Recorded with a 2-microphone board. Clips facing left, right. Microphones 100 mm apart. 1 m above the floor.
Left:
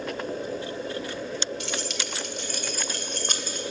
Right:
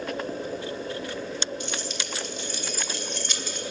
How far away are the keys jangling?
About 1.9 m.